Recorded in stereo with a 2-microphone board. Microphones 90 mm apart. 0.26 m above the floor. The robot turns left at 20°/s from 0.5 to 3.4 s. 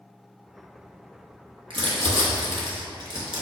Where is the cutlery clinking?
I don't hear cutlery clinking.